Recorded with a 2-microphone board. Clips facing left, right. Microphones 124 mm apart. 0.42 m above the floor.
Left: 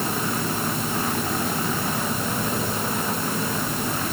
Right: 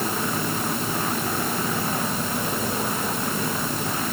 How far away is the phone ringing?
No phone ringing in this recording.